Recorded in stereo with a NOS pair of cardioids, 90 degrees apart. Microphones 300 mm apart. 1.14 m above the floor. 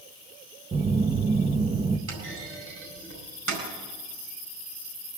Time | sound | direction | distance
0.7 | a phone buzzing | 20° right | 0.9 m
2.1 | a clunk | 45° right | 4.5 m